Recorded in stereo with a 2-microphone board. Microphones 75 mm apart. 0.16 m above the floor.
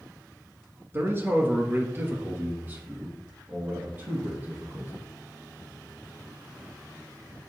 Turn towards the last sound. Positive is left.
turn(degrees=-25)  # may be behind; listen again after turning